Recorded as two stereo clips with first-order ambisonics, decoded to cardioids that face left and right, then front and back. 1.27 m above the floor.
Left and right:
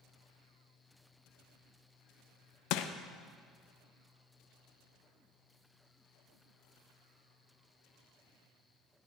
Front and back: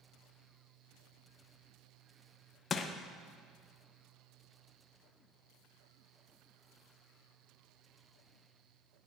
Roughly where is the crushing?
Ahead left.